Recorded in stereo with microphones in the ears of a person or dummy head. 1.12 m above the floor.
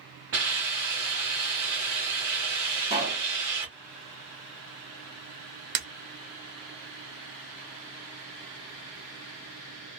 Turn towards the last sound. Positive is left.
turn(degrees=-50)  # may be behind; listen again after turning